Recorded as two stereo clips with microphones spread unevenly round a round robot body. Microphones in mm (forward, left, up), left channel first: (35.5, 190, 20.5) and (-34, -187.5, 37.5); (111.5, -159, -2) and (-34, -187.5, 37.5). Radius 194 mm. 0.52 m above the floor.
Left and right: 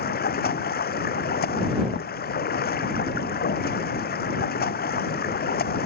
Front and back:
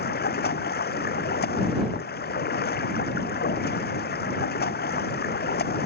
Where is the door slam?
I don't hear a door slam.